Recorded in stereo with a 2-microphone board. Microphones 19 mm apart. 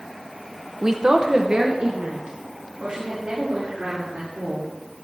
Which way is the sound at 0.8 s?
20° right (ahead or behind).